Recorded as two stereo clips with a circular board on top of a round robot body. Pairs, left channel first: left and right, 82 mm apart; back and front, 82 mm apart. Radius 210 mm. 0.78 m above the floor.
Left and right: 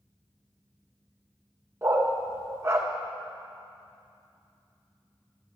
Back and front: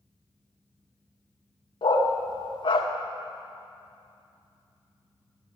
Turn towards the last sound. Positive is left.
turn(degrees=-150)